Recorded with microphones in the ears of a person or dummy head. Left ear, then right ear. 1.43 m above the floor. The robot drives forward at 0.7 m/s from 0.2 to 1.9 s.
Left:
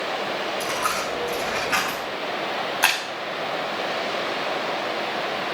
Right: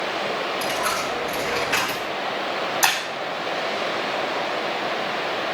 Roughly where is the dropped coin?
Left.